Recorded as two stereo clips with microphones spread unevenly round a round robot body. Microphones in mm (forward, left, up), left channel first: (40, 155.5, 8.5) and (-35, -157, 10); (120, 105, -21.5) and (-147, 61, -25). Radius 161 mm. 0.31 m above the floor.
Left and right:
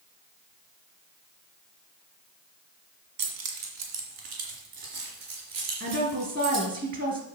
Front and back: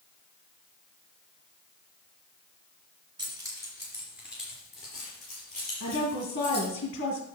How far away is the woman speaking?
About 3 m.